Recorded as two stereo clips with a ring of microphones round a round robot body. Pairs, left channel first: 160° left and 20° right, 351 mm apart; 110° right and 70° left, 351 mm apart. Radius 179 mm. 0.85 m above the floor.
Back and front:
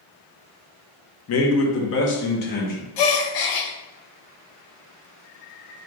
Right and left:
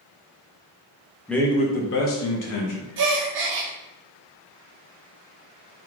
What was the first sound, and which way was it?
A man speaking, 160° left.